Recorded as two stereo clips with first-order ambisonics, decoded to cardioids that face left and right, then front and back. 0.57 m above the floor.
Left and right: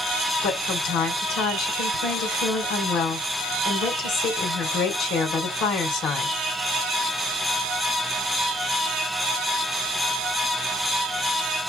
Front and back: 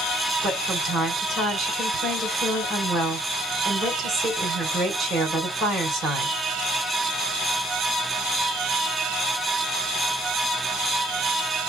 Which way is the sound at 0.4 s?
120° left.